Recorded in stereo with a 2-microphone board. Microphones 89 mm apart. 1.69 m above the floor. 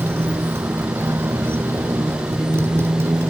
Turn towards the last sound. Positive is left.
turn(degrees=-25)  # may be behind; listen again after turning